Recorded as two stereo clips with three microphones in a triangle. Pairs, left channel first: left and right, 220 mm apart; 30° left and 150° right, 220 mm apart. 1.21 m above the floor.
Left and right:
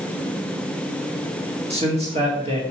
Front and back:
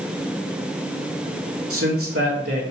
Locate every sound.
1.7 s a man speaking: 150° right, 2.5 m